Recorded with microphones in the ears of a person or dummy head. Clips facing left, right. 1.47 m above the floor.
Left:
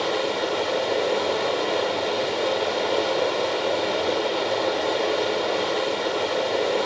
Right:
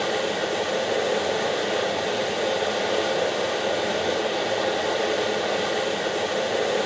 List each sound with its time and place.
0.0 s running water: 5° right (ahead or behind), 0.9 m